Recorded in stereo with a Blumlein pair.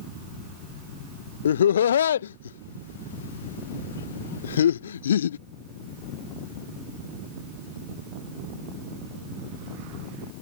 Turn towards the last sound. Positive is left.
turn(degrees=65)